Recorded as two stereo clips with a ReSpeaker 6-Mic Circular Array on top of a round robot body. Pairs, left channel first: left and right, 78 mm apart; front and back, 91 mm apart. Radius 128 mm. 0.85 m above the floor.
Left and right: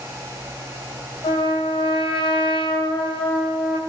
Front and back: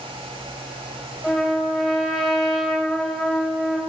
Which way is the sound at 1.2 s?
90° left.